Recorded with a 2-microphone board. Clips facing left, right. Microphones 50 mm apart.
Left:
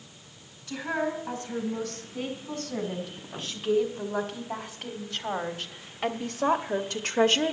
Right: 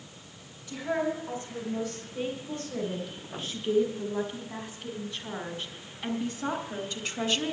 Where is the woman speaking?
55° left (ahead or behind), 4 m; by 7.5 s 45° left (ahead or behind), 0.8 m.